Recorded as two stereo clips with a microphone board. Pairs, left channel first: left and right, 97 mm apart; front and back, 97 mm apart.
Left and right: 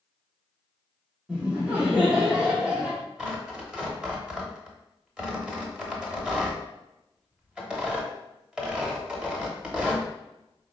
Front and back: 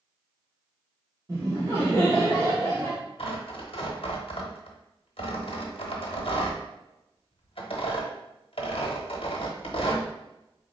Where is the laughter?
160° right, 1.1 m.